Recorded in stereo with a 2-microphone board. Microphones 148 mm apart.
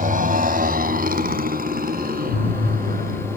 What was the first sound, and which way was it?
A motorcycle, 70° right (ahead or behind).